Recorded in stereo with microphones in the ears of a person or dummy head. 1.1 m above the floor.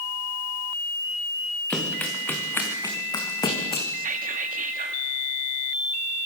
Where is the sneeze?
I don't hear a sneeze.